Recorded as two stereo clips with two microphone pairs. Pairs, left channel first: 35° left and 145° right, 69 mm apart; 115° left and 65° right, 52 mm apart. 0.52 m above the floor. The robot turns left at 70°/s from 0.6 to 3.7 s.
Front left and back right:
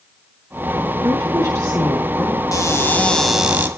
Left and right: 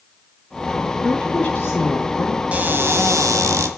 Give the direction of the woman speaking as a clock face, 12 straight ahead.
6 o'clock.